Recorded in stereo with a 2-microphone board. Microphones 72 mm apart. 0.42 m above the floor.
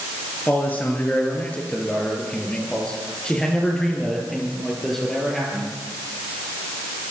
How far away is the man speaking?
About 5.5 m.